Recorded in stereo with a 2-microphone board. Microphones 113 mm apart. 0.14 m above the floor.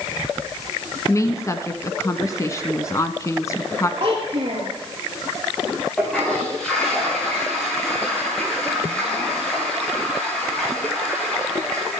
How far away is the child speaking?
About 2 m.